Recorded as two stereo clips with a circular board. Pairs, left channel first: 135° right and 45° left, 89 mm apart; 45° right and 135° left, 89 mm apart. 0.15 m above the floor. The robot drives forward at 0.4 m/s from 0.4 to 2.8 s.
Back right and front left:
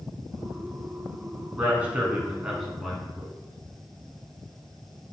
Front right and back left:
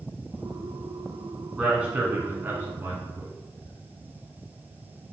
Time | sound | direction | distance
1.6 | a man speaking | 70° left | 1.0 m